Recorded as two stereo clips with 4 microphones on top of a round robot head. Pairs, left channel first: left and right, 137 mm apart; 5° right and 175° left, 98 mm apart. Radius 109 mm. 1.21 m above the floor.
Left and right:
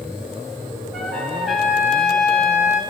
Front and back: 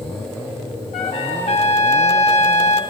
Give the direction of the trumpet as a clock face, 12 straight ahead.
12 o'clock.